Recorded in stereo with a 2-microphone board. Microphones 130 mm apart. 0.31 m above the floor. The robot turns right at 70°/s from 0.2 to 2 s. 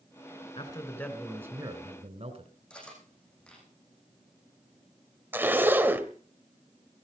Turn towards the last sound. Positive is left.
turn(degrees=-15)  # may be behind; listen again after turning